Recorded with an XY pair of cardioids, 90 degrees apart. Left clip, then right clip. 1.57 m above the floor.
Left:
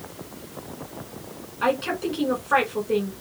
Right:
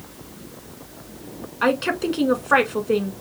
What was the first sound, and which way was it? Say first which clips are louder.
A woman speaking: right 3 dB; 55° right.